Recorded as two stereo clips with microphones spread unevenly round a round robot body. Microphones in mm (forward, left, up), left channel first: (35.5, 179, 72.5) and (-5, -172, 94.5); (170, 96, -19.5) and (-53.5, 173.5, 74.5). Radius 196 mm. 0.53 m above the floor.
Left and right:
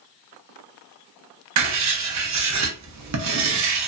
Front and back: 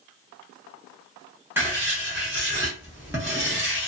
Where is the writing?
95° right, 0.7 m.